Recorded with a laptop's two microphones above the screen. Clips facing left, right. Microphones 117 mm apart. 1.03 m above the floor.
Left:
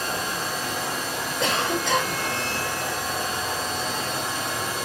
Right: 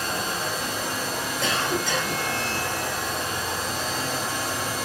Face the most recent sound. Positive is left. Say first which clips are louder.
# left 2 dB
turn(degrees=75)  # may be behind; listen again after turning